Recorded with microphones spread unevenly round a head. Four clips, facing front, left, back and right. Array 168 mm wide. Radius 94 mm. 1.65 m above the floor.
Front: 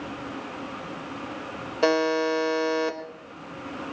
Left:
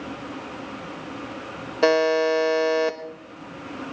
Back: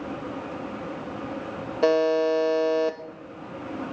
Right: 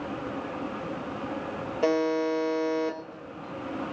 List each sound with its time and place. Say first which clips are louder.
1.8 s a buzzer: left 6 dB, back 2 dB; 125° left, 1.0 m